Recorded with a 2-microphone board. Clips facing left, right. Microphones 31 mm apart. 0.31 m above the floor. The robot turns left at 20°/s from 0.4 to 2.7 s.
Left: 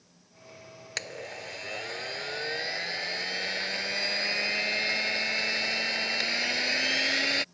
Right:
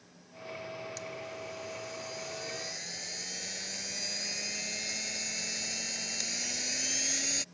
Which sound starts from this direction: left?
A blender, at 1.0 s.